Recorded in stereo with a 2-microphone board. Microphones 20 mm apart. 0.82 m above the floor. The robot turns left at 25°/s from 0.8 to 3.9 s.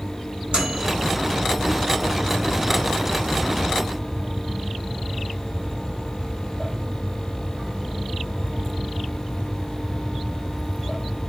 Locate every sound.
0.5 s a microwave: 60° right (ahead or behind), 4.5 m